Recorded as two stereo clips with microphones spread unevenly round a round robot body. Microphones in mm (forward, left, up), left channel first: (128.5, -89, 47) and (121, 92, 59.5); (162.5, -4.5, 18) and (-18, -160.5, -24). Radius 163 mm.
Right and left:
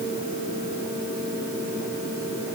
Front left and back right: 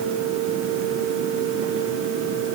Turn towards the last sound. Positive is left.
No sound to turn to.